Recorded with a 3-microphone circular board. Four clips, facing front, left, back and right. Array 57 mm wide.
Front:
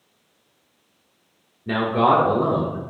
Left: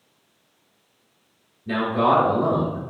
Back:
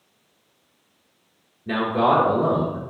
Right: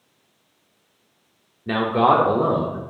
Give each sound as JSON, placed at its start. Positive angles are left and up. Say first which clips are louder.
{"t": 1.7, "sound": "a man speaking", "louder": "right 2 dB, front 1 dB", "azimuth_deg": -75, "distance_m": 0.9}